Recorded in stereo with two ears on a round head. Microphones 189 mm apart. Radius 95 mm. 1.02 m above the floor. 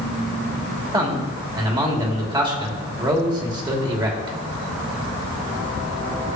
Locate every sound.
0.9 s a man speaking: 20° right (ahead or behind), 2.5 m